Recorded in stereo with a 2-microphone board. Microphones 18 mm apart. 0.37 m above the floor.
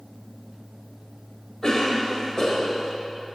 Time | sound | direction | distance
1.6 | a cough | 45° left (ahead or behind) | 1.3 m